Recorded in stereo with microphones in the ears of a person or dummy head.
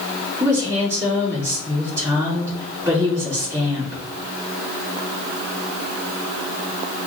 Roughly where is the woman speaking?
Centre.